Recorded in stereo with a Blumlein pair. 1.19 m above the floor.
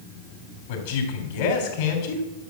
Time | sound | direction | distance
0.7 | a man speaking | 50° left | 3.5 m